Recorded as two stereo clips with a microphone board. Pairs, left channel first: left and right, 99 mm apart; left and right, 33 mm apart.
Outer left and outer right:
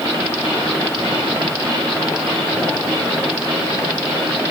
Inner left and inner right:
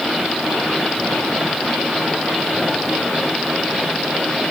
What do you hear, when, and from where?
Only background noise.